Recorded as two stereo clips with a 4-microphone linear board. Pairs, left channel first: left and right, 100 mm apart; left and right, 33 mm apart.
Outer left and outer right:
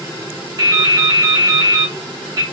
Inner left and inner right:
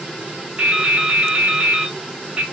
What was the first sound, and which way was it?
Dripping, 35° right (ahead or behind).